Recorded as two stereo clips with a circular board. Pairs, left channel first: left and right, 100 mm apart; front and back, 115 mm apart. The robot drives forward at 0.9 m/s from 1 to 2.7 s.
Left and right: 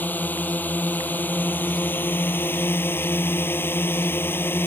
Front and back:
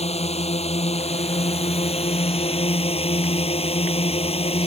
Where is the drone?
20° left; by 4.7 s 25° left.